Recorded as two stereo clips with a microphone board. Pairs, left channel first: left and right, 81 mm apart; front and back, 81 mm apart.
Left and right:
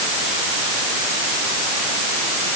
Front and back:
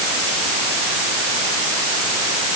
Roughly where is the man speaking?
No man speaking in this recording.